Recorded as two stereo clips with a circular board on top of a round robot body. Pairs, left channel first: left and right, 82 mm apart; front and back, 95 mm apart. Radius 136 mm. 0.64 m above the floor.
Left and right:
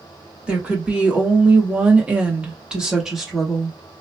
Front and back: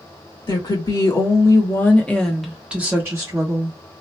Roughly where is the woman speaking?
Ahead.